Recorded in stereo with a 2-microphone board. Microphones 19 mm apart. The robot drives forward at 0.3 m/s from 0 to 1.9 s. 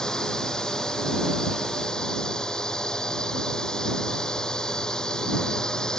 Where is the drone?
45° left (ahead or behind).